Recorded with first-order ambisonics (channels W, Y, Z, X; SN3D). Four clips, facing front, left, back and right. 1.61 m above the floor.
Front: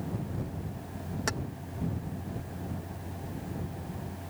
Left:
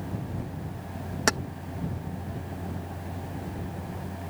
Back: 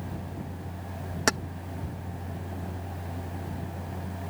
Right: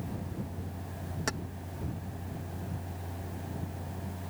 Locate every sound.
1.3 s keys jangling: 130° left